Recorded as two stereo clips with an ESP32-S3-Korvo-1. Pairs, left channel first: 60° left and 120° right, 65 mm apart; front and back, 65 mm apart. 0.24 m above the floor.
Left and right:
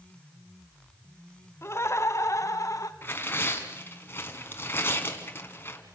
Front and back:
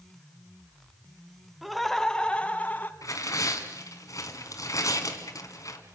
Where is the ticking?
I don't hear ticking.